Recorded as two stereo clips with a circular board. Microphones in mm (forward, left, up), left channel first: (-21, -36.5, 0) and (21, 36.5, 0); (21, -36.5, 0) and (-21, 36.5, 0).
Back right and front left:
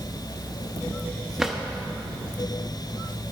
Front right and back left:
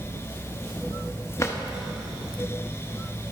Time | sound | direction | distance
1.4 | a drawer | 20° right | 0.9 m